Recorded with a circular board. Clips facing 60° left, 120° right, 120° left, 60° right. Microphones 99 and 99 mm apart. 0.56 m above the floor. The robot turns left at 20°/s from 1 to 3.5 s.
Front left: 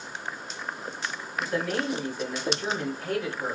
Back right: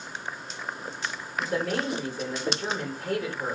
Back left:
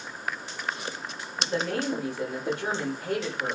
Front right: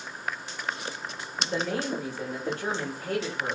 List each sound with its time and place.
1.4 s a woman speaking: 145° right, 1.9 m; by 3.5 s 170° left, 1.9 m